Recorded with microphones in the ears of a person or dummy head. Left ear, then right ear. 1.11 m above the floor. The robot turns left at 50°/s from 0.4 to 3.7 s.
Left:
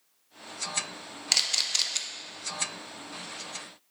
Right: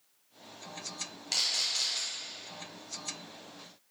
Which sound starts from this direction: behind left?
A camera shutter, at 1.3 s.